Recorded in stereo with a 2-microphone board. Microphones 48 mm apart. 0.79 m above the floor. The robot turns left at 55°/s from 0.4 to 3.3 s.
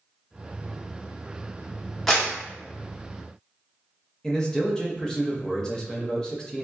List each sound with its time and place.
2.1 s a clap: 10° left (ahead or behind), 1.1 m; by 2.3 s 20° left (ahead or behind), 1.1 m
4.2 s a man speaking: 15° left (ahead or behind), 0.6 m